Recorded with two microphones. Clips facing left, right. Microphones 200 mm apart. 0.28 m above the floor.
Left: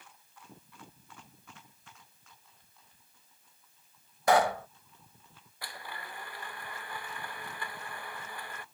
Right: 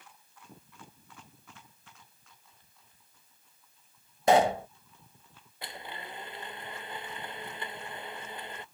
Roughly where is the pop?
Right.